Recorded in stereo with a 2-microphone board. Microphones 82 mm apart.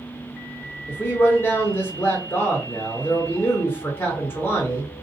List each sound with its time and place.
0.9 s a man speaking: 30° left (ahead or behind), 0.8 m